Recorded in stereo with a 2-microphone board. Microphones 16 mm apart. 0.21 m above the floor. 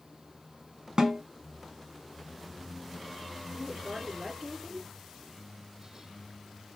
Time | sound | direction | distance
1.0 | a snare drum | 45° right (ahead or behind) | 1.2 m
3.5 | a woman speaking | 35° right (ahead or behind) | 2.5 m